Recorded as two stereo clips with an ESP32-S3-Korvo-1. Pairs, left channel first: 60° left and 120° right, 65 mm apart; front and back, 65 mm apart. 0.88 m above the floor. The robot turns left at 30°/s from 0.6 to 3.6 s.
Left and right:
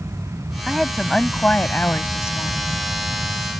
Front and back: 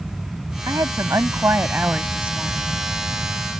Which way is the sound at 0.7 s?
155° left.